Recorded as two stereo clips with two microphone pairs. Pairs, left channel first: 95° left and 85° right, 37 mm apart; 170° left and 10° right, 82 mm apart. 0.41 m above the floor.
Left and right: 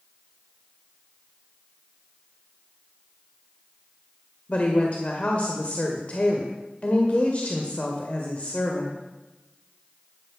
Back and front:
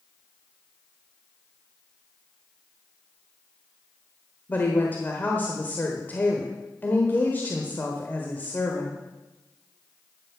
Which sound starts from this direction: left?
A woman speaking, at 4.5 s.